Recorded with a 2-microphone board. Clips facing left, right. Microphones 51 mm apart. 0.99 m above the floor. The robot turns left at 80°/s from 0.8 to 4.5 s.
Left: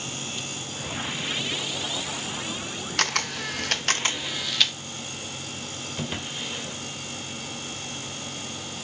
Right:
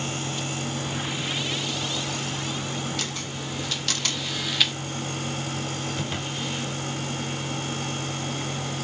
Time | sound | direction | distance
3.0 | a camera shutter | 60° left (ahead or behind) | 0.6 m
6.0 | a drawer | 5° left (ahead or behind) | 1.7 m